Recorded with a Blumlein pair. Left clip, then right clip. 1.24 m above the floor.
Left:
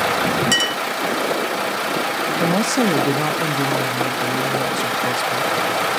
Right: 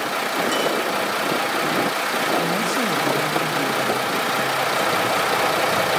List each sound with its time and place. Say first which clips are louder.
0.5 s a clink: left 3 dB; 60° left, 0.9 m
2.4 s a woman speaking: left 3 dB; 25° left, 2 m